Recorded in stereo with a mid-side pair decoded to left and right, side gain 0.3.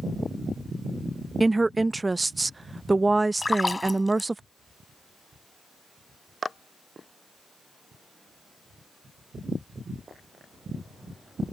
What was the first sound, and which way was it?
A woman speaking, 30° right.